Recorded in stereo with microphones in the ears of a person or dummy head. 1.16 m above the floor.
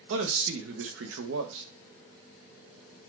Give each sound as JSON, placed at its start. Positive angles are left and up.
{"t": 0.1, "sound": "a man speaking", "side_deg": -70, "distance_m": 0.8}